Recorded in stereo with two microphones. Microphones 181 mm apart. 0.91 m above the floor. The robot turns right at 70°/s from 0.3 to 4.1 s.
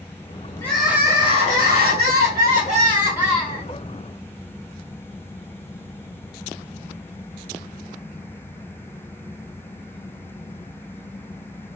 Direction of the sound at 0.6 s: 170° left.